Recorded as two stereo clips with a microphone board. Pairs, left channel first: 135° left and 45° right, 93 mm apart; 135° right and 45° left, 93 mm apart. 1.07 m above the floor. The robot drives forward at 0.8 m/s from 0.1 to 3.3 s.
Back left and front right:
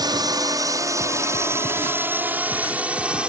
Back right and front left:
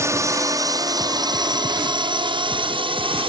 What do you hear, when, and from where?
0.0 s a drone: 10° right; by 3.3 s 35° left